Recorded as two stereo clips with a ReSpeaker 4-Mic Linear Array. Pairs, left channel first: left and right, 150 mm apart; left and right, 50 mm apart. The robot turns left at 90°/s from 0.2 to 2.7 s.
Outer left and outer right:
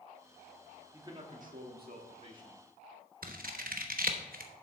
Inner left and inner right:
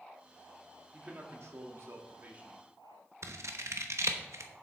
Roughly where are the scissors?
Right.